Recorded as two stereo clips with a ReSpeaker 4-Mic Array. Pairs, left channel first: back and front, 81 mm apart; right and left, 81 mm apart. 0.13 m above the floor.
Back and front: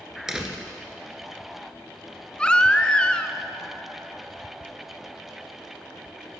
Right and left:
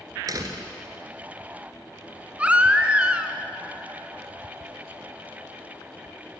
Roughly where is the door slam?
Left.